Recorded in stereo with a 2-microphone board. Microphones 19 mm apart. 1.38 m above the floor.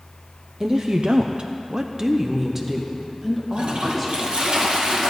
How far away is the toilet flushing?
About 1.6 m.